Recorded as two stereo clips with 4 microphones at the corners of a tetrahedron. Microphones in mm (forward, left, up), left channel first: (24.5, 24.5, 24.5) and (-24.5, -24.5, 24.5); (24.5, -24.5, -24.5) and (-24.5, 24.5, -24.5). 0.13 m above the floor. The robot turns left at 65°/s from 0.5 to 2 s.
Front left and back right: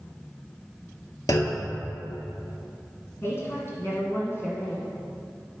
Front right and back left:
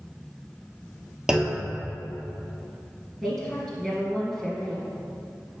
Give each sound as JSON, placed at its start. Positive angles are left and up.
{"t": 1.3, "sound": "a clunk", "azimuth_deg": 60, "distance_m": 0.8}
{"t": 3.2, "sound": "a woman speaking", "azimuth_deg": 30, "distance_m": 1.8}